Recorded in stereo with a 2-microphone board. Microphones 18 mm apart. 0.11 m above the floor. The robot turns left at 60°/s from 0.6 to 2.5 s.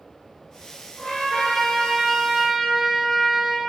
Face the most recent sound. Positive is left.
turn(degrees=0)